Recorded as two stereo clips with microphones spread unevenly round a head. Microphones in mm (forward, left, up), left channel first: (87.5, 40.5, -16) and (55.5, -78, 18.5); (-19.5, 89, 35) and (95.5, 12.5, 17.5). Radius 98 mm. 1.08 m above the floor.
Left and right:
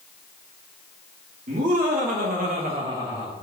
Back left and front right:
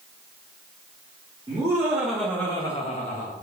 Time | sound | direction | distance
1.5 | laughter | 100° right | 1.3 m